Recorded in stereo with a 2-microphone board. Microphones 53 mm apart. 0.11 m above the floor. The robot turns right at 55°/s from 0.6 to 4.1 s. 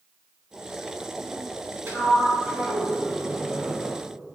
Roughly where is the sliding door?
Right.